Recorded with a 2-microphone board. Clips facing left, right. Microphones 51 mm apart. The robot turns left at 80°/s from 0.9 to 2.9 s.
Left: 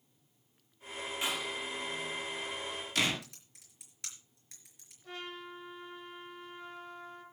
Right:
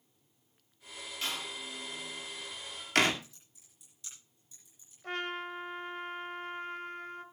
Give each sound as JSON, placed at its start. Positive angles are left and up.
{"t": 1.2, "sound": "a door slam", "side_deg": 15, "distance_m": 2.0}
{"t": 3.2, "sound": "typing on a keyboard", "side_deg": 80, "distance_m": 4.5}
{"t": 5.0, "sound": "a trumpet", "side_deg": -60, "distance_m": 1.8}